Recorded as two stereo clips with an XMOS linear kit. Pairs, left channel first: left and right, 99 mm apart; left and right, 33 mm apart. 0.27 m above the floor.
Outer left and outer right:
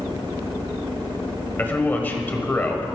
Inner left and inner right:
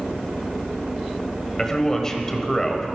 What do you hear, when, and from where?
1.6 s a man speaking: 20° left (ahead or behind), 1.1 m